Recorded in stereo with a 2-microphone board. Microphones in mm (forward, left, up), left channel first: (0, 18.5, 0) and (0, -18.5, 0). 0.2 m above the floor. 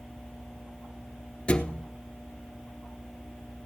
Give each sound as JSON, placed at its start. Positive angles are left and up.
{"t": 1.5, "sound": "a thud", "side_deg": 30, "distance_m": 1.1}